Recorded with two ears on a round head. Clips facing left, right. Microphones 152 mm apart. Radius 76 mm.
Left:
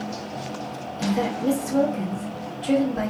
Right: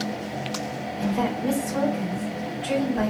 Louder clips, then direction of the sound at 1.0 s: Left 1 dB; 50° left (ahead or behind).